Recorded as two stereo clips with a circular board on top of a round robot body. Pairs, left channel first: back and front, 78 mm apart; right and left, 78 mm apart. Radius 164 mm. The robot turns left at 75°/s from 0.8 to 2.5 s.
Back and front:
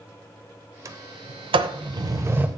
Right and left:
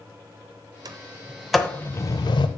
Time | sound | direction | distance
0.8 | a sliding door | 50° left | 0.7 m